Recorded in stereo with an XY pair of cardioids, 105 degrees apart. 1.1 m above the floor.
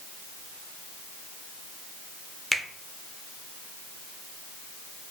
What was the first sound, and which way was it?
A finger snap, straight ahead.